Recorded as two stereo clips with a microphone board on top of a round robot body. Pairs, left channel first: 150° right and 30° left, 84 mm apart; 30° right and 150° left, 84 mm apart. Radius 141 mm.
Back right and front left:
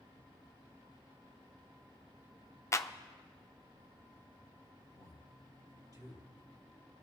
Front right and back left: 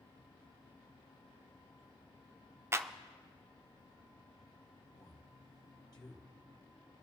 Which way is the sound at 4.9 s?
5° right.